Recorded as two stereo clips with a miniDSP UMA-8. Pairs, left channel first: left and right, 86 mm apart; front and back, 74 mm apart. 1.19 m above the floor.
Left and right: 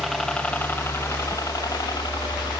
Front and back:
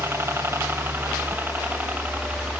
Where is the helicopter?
Straight behind; by 2.6 s 110° left.